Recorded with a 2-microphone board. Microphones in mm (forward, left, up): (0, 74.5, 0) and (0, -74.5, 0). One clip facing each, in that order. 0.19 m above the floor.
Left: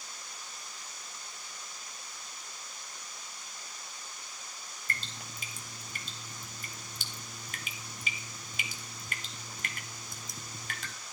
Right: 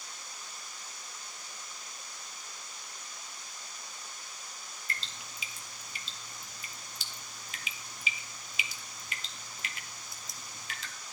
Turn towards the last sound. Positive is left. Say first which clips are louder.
# left 2 dB
turn(degrees=50)  # may be behind; listen again after turning